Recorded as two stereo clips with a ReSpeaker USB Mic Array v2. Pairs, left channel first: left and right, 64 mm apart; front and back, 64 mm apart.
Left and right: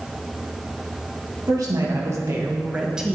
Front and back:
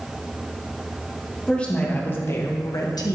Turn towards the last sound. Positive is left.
turn(degrees=-5)